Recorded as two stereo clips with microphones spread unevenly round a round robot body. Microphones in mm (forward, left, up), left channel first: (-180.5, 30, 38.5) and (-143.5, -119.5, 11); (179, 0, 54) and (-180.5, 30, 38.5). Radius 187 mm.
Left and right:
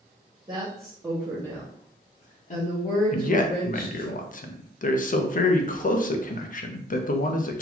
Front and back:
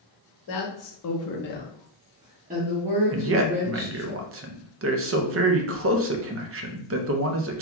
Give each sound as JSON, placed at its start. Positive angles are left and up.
{"t": 0.5, "sound": "a woman speaking", "azimuth_deg": -20, "distance_m": 1.3}
{"t": 3.1, "sound": "a man speaking", "azimuth_deg": 135, "distance_m": 0.6}